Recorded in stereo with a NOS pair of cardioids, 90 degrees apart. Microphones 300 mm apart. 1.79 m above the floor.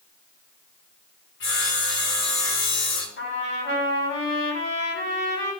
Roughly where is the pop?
No pop in this recording.